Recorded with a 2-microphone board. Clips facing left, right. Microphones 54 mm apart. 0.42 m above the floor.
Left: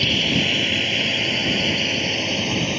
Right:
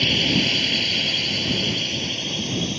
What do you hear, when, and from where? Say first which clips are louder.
0.0 s a drone: even; 10° left (ahead or behind); by 2.8 s 60° left (ahead or behind)